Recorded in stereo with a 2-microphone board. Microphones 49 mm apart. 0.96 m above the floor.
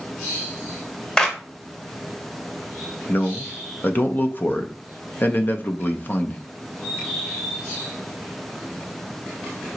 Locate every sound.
1.2 s a clap: 15° left (ahead or behind), 0.9 m
3.1 s a man speaking: 40° left (ahead or behind), 0.5 m